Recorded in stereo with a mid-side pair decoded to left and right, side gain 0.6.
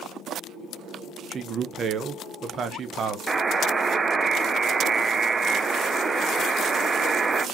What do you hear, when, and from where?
1.3 s a man speaking: 45° right, 0.9 m
3.3 s a buzzer: 25° right, 0.6 m